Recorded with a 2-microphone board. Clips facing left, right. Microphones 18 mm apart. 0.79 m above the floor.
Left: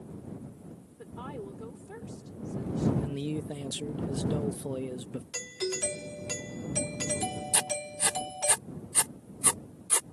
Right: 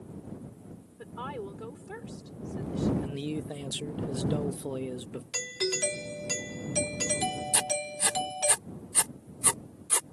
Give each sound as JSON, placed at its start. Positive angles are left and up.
{"t": 1.0, "sound": "a woman speaking", "side_deg": -30}
{"t": 3.0, "sound": "a man speaking", "side_deg": -10}
{"t": 5.3, "sound": "a doorbell", "side_deg": -30}
{"t": 7.5, "sound": "writing", "side_deg": -15}